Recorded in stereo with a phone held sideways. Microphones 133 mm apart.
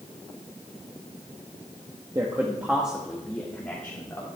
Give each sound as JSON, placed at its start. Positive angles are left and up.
{"t": 2.1, "sound": "a man speaking", "side_deg": -25, "distance_m": 1.3}